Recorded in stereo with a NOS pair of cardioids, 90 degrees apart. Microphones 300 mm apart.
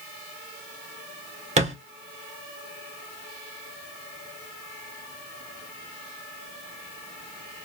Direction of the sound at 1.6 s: 25° right.